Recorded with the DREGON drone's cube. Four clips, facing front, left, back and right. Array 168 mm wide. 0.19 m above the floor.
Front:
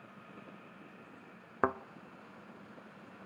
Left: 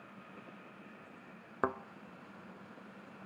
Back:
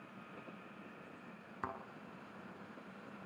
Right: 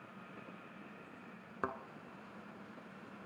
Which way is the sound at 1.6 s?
20° left.